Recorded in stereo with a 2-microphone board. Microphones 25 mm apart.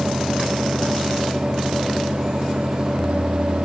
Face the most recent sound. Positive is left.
No sound to turn to.